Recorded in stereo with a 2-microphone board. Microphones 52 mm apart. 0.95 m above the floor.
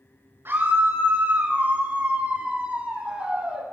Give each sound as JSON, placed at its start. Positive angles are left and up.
{"t": 0.5, "sound": "a scream", "side_deg": -50, "distance_m": 4.5}